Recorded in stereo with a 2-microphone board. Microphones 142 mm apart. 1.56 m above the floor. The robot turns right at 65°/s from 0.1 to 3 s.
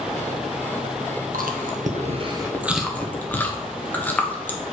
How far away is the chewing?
About 1.2 m.